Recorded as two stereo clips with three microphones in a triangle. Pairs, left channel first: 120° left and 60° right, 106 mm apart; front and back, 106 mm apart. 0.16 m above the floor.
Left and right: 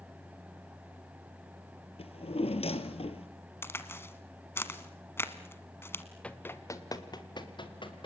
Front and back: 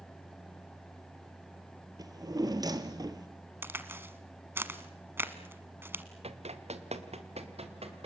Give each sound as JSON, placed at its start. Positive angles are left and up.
{"t": 2.0, "sound": "a drawer", "azimuth_deg": 130, "distance_m": 1.2}
{"t": 3.6, "sound": "a crack", "azimuth_deg": 145, "distance_m": 1.3}
{"t": 6.2, "sound": "running footsteps", "azimuth_deg": -160, "distance_m": 1.6}